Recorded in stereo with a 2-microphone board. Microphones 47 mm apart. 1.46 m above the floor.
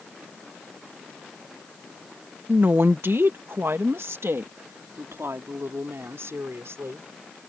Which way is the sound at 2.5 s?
50° right (ahead or behind).